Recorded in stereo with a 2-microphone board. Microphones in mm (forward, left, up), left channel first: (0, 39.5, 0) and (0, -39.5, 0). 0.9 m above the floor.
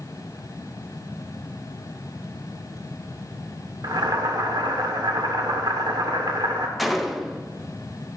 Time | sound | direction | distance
3.8 | boiling | 70° right (ahead or behind) | 1.2 m
6.8 | a gunshot | centre (ahead or behind) | 0.6 m